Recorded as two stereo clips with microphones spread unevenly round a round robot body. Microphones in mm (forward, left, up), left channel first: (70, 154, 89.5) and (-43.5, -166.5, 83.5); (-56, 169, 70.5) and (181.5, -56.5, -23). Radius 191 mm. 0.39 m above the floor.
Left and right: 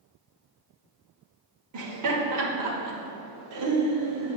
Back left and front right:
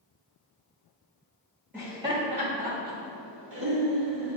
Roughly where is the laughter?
Behind right.